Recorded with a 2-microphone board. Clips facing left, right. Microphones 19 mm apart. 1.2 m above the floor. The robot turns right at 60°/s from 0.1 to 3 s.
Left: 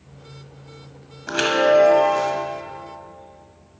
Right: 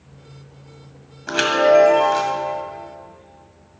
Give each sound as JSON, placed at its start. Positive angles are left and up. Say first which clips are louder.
{"t": 1.3, "sound": "a chime", "louder": "right 2 dB", "azimuth_deg": -170, "distance_m": 1.4}